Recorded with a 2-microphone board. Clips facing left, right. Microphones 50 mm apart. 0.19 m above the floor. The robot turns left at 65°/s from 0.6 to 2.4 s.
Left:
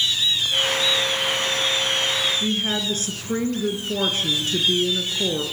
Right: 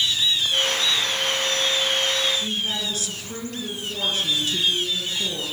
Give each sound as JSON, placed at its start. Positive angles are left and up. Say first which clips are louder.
{"t": 2.3, "sound": "a woman speaking", "louder": "left 3 dB", "side_deg": 45, "distance_m": 3.0}